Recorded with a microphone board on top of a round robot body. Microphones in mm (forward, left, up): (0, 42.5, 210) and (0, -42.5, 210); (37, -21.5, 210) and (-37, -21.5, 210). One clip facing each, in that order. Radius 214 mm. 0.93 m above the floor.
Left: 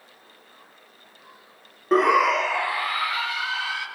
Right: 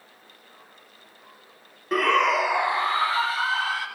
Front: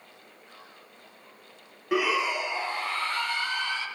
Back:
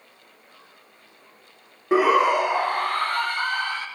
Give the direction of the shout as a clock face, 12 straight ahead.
7 o'clock.